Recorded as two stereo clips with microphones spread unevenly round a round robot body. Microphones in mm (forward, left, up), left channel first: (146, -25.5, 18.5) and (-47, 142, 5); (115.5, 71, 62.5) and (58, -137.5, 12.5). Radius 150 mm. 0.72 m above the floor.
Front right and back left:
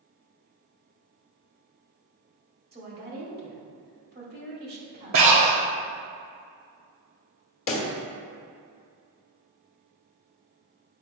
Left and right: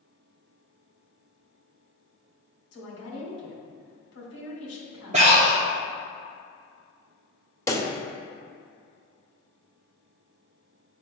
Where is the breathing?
Straight behind, 0.6 m.